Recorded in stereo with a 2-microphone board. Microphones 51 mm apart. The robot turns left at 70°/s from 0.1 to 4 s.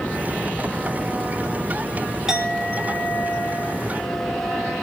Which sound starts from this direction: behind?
A clink, at 2.3 s.